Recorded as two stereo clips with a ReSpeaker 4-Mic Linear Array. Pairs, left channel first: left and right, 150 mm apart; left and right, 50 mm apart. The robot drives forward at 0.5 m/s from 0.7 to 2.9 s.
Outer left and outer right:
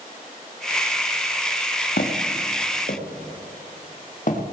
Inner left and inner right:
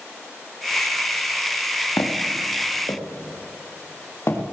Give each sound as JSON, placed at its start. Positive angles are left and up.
{"t": 2.0, "sound": "footsteps", "side_deg": 75, "distance_m": 2.0}